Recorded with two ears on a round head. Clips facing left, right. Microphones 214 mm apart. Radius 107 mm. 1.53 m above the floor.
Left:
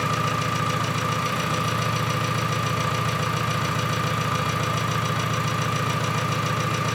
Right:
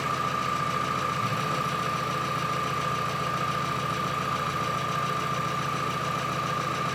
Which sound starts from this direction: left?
An engine running, at 0.0 s.